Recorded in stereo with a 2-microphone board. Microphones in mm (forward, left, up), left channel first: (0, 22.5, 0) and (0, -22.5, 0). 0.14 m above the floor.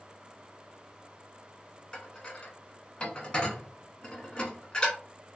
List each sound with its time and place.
1.9 s dishes clattering: 20° left (ahead or behind), 0.8 m